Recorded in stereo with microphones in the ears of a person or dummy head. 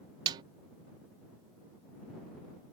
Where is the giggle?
I don't hear a giggle.